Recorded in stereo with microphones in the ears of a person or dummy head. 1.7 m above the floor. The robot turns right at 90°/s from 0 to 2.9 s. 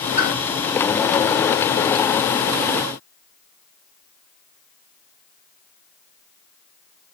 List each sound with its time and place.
0.2 s a pop: 5° left (ahead or behind), 1.8 m; by 0.3 s 15° left (ahead or behind), 1.8 m